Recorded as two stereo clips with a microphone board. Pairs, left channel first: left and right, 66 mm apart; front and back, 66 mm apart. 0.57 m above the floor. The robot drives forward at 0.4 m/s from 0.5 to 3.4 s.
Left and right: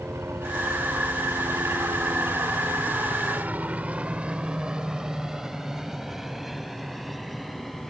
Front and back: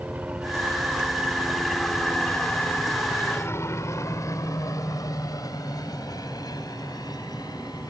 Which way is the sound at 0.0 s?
125° right.